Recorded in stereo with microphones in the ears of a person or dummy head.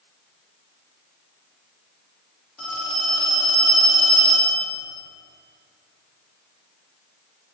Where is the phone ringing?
5° left (ahead or behind), 0.7 m.